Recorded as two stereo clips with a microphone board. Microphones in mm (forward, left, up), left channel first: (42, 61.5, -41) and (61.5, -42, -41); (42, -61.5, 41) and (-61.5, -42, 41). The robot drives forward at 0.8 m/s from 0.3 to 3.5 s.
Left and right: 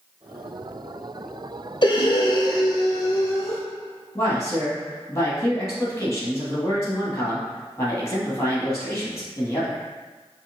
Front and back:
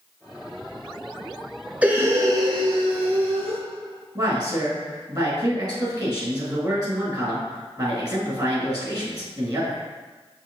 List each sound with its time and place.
1.8 s breathing: 95° left, 0.8 m; by 3.6 s 160° left, 1.6 m
4.2 s a man speaking: 150° left, 1.9 m